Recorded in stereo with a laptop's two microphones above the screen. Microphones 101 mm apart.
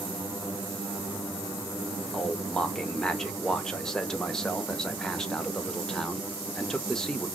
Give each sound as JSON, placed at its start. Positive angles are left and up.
{"t": 2.1, "sound": "a man speaking", "side_deg": 5, "distance_m": 0.8}